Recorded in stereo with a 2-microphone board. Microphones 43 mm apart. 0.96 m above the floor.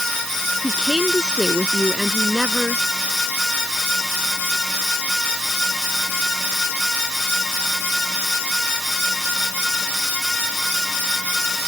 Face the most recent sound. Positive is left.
turn(degrees=-20)  # may be behind; listen again after turning